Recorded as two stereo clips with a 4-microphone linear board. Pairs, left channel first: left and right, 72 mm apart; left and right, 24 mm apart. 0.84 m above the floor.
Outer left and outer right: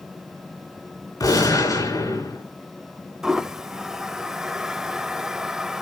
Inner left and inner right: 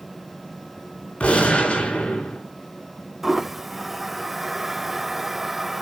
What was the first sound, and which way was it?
A gunshot, 55° left (ahead or behind).